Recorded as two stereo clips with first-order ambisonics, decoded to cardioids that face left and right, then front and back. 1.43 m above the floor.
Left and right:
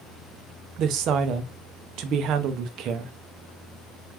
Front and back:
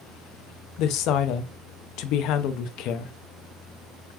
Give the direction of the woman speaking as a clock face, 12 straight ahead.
1 o'clock.